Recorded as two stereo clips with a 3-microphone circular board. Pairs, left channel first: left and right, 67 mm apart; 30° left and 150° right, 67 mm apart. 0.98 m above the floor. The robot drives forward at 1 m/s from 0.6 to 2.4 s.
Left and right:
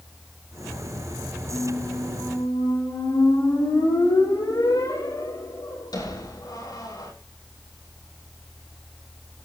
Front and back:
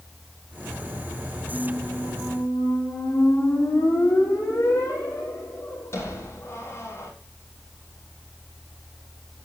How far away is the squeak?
About 9 m.